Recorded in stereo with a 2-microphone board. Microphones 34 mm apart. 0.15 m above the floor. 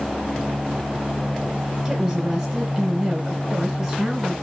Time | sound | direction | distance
1.9 | a woman speaking | 5° right (ahead or behind) | 1.5 m